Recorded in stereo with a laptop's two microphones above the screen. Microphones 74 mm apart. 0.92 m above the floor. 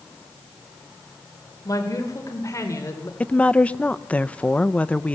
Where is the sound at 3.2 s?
15° left (ahead or behind), 0.6 m.